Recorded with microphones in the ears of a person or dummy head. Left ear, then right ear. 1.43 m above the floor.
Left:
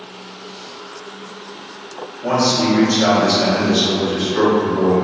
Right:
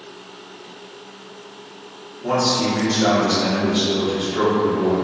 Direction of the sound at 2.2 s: 65° left (ahead or behind).